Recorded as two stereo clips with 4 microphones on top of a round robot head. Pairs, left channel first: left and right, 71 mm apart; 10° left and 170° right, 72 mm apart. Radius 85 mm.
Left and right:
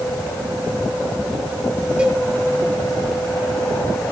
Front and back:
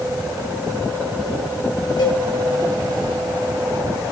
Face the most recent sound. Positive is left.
turn(degrees=-15)